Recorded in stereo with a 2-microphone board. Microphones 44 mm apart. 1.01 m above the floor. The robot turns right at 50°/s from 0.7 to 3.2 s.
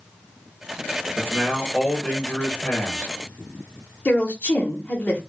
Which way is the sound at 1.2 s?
20° right.